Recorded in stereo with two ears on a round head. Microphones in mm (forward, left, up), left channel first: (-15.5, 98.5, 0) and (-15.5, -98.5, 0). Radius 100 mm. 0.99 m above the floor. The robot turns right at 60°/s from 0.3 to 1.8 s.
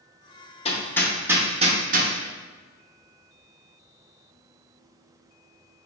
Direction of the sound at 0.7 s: 30° left (ahead or behind).